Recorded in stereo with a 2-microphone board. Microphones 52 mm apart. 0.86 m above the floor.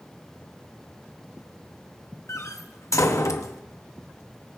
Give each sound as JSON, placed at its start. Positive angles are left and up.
{"t": 2.3, "sound": "a door slam", "side_deg": 70, "distance_m": 0.8}